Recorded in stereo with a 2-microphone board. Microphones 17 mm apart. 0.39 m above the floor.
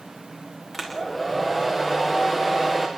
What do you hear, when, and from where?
0.7 s a hair dryer: 5° left (ahead or behind), 6 m